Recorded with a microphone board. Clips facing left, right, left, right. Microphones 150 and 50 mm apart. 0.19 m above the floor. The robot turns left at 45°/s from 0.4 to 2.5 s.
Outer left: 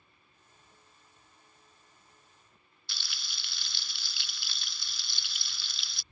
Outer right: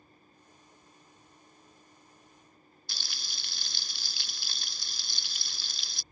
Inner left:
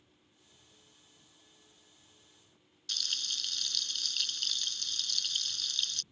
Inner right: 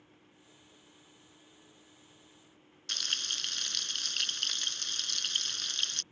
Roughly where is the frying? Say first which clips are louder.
Outer right 1 dB, inner right 3 dB; right.